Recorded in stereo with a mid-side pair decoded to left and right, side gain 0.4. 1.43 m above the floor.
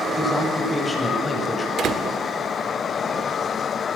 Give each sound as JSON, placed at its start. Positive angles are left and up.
{"t": 0.2, "sound": "a man speaking", "azimuth_deg": 30, "distance_m": 9.0}
{"t": 1.8, "sound": "a door slam", "azimuth_deg": -65, "distance_m": 2.5}